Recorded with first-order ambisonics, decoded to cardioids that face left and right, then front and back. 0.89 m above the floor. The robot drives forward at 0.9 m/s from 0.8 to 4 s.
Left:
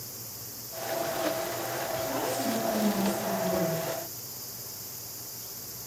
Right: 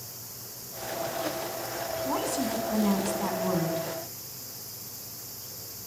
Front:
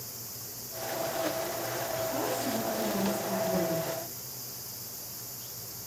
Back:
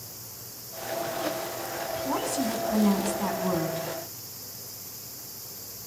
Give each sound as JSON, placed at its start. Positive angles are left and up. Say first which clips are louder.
{"t": 2.0, "sound": "a woman speaking", "louder": "right 3 dB, back 3 dB", "azimuth_deg": -140, "distance_m": 7.0}